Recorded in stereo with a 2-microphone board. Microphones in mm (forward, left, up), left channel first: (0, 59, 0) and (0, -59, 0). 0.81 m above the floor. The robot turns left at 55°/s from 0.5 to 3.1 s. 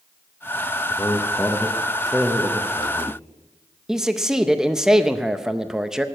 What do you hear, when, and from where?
0.9 s a man speaking: 20° left (ahead or behind), 0.9 m; by 3.2 s 20° right (ahead or behind), 0.9 m
3.9 s a man speaking: 5° right (ahead or behind), 0.6 m